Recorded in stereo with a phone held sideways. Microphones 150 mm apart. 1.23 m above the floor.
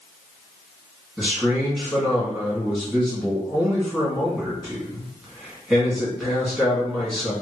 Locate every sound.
1.2 s a man speaking: centre (ahead or behind), 1.9 m